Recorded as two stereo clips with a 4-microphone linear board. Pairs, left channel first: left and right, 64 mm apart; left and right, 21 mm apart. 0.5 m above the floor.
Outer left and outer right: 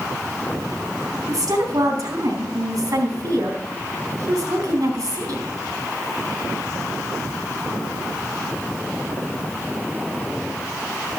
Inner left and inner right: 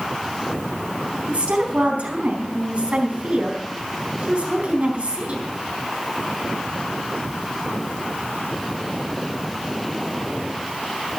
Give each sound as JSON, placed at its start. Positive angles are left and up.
{"t": 1.3, "sound": "a woman speaking", "side_deg": -80, "distance_m": 4.0}